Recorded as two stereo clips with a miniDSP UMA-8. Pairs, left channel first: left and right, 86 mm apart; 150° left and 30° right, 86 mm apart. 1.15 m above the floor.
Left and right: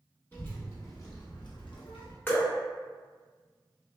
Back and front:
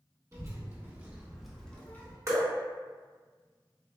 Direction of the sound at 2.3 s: 25° left.